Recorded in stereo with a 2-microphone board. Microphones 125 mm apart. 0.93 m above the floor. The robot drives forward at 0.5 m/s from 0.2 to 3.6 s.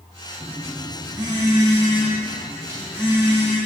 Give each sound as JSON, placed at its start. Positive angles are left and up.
{"t": 0.4, "sound": "a phone buzzing", "side_deg": -40, "distance_m": 1.2}